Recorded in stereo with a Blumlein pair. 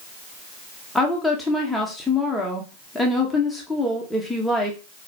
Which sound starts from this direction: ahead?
A woman speaking, at 0.9 s.